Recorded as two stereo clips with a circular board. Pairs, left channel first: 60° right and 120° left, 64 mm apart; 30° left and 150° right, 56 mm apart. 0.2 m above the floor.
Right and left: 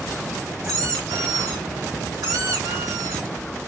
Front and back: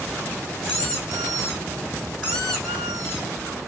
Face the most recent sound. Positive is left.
turn(degrees=105)